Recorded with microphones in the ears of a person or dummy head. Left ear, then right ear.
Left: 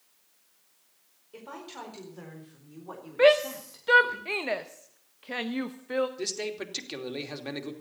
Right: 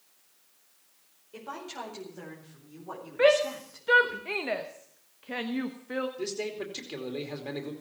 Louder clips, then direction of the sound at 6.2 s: Left 1 dB; 30° left (ahead or behind).